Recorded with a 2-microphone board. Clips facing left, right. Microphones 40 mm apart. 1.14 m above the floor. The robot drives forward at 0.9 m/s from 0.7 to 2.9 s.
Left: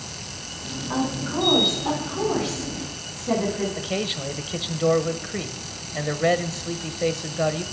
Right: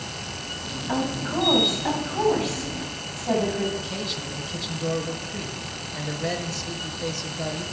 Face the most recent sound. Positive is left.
turn(degrees=35)  # may be behind; listen again after turning